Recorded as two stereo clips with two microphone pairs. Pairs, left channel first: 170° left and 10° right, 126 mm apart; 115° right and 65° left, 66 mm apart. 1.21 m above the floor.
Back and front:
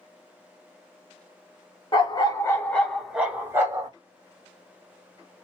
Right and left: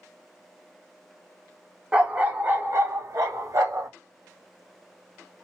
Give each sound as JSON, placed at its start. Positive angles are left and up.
{"t": 1.9, "sound": "a dog barking", "azimuth_deg": 135, "distance_m": 1.1}